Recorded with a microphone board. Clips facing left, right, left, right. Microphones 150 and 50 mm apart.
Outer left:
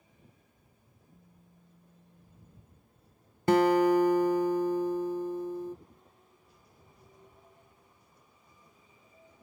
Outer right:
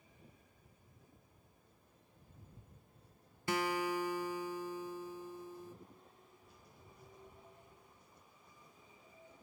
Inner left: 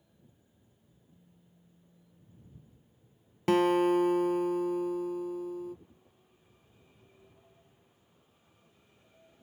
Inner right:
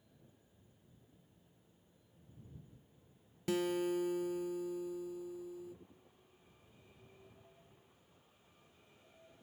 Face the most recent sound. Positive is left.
turn(degrees=60)  # may be behind; listen again after turning